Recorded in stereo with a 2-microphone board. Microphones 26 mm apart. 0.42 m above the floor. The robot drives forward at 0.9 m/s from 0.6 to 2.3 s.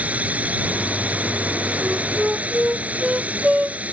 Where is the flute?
35° right (ahead or behind).